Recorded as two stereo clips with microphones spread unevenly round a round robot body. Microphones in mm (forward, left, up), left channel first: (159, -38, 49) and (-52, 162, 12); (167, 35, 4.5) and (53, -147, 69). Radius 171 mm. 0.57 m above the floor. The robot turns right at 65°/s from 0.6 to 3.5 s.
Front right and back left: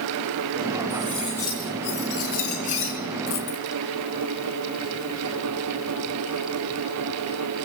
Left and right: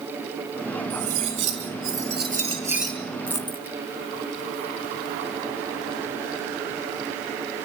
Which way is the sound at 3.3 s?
30° right.